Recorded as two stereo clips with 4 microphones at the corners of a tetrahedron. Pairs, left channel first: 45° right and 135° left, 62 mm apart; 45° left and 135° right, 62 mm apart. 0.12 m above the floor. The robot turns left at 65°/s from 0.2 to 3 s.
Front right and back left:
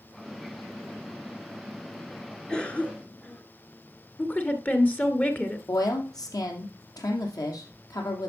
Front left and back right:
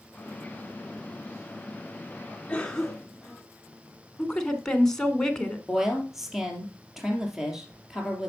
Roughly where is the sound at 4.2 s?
Ahead right.